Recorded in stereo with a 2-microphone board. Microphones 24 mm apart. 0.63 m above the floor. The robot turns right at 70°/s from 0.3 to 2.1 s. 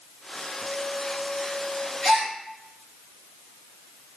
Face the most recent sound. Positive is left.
turn(degrees=45)  # may be behind; listen again after turning